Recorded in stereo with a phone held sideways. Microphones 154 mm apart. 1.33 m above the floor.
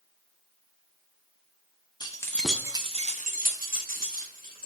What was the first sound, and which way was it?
Keys jangling, 25° left (ahead or behind).